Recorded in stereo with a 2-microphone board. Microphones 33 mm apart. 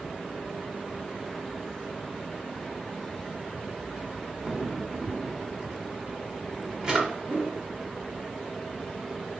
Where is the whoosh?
30° right (ahead or behind), 1.7 m.